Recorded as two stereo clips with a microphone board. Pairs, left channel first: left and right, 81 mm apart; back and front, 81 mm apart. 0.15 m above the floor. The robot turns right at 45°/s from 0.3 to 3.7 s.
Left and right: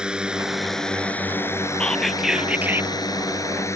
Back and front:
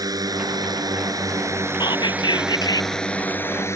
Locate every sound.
0.0 s a drone: 15° right; by 3.8 s 130° left
1.8 s whispering: 165° left; by 3.0 s 145° right